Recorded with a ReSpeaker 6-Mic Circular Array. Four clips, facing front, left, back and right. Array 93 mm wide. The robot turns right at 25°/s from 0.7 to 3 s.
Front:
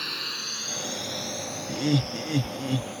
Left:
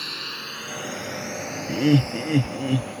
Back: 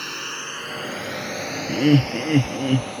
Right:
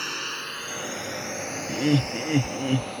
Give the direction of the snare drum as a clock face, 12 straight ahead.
No snare drum in this recording.